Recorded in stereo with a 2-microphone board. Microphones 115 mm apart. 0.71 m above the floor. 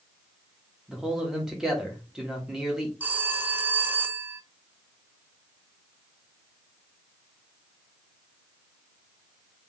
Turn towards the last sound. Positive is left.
turn(degrees=-15)  # may be behind; listen again after turning